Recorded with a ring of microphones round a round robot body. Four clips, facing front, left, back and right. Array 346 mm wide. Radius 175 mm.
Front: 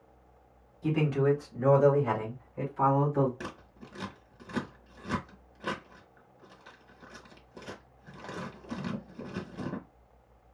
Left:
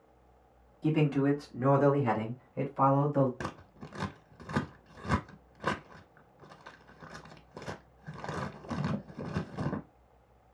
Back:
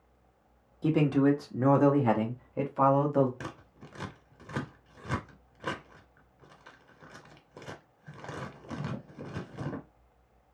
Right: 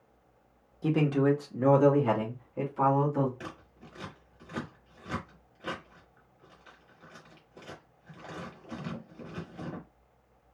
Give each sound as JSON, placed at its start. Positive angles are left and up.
{"t": 0.8, "sound": "a man speaking", "azimuth_deg": -145, "distance_m": 1.6}
{"t": 3.4, "sound": "scissors", "azimuth_deg": 95, "distance_m": 0.7}